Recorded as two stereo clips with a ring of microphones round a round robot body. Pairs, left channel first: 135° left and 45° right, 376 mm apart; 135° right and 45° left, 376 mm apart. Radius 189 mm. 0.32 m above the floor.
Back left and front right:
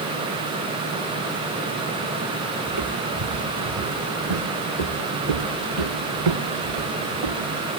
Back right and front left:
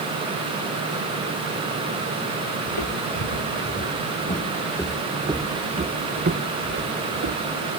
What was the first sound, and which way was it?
Footsteps, 95° right.